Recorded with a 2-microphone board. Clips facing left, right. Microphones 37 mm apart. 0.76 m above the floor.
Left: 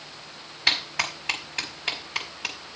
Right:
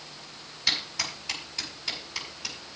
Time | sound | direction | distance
0.7 | a clap | 55° left (ahead or behind) | 5 m